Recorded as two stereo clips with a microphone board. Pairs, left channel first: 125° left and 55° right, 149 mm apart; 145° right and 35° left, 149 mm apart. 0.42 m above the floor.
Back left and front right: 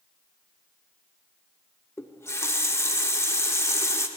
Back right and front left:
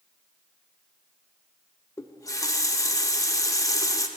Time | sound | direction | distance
2.0 | a running tap | 175° left | 0.6 m